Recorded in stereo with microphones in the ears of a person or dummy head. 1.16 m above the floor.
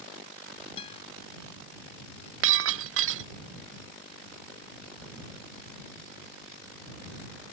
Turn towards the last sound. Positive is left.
turn(degrees=-80)